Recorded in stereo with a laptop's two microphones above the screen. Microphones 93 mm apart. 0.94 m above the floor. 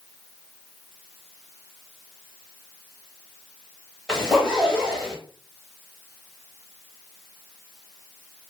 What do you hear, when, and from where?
4.1 s a zipper: 5° right (ahead or behind), 0.8 m